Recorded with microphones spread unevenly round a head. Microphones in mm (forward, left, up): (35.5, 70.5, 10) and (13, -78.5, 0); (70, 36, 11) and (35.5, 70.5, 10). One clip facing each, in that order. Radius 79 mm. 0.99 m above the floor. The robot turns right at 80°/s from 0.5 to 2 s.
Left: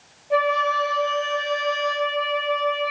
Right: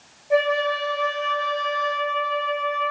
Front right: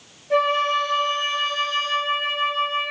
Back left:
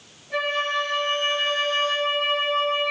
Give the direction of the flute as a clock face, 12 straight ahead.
1 o'clock.